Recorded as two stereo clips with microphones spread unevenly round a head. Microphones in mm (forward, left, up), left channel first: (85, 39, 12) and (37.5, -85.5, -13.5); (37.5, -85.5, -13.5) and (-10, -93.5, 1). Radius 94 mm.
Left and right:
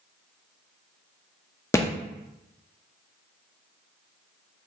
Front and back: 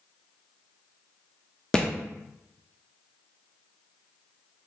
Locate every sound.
1.7 s a thud: 105° left, 0.6 m